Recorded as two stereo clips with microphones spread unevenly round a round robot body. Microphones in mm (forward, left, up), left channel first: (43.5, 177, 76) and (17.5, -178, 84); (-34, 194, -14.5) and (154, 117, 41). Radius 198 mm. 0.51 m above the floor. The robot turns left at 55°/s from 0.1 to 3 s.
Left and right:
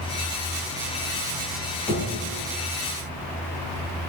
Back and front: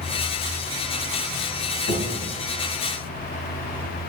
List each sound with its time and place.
1.9 s knocking: 165° left, 3 m; by 2.1 s 150° left, 3 m